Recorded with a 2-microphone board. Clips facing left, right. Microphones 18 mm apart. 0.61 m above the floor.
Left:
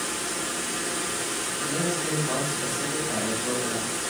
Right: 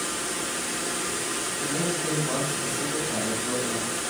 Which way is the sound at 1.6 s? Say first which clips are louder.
Left 1 dB; 25° left (ahead or behind).